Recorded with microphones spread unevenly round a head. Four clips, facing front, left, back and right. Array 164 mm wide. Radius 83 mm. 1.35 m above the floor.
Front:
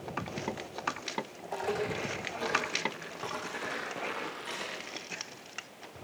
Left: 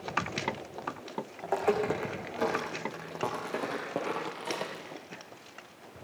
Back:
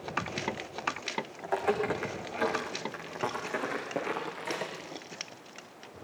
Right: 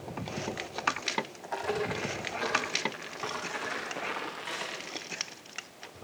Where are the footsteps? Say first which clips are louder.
Left 7 dB, back 5 dB; 110° left, 5 m; by 5.0 s 135° left, 5 m.